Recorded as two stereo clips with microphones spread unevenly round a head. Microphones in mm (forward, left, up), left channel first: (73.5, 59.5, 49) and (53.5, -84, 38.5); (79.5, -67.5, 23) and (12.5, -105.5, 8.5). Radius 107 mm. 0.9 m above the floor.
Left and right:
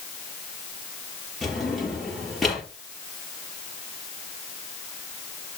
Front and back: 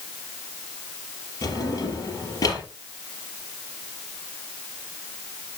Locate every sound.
1.4 s a drawer: 5° right, 5 m